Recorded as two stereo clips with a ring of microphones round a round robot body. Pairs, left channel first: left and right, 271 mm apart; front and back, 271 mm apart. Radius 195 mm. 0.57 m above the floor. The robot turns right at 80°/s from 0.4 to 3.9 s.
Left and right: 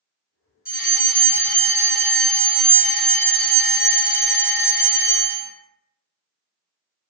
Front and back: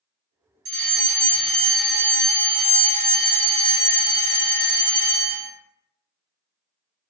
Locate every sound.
0.7 s a fire alarm: 165° left, 1.9 m; by 5.5 s 65° left, 1.9 m